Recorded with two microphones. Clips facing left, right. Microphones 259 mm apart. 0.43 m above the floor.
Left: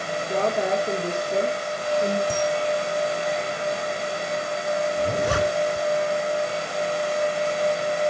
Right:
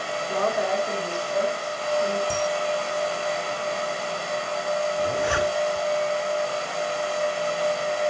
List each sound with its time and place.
0.3 s a woman speaking: 25° left (ahead or behind), 2 m; by 2.2 s 50° left (ahead or behind), 2 m
2.3 s a camera shutter: 35° left (ahead or behind), 5.5 m
5.0 s a zipper: 45° left (ahead or behind), 1.1 m